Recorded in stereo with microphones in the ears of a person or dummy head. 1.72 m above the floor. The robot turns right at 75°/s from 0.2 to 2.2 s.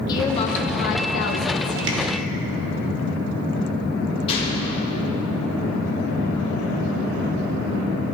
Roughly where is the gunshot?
Left.